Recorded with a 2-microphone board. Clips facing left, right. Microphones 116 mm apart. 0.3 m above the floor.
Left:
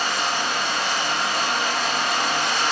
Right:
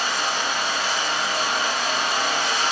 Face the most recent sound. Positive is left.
turn(degrees=60)  # may be behind; listen again after turning